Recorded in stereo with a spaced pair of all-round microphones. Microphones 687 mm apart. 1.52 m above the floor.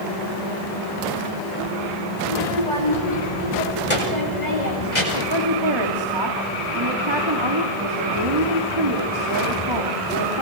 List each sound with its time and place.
2.2 s a child speaking: 85° left, 6 m
5.1 s a woman speaking: 40° right (ahead or behind), 3 m